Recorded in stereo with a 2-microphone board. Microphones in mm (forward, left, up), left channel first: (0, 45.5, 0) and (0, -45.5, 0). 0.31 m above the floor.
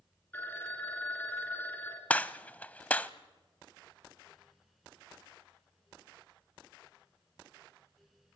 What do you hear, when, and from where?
0.3 s a phone ringing: 20° left (ahead or behind), 3 m
2.1 s a gunshot: 15° left (ahead or behind), 0.7 m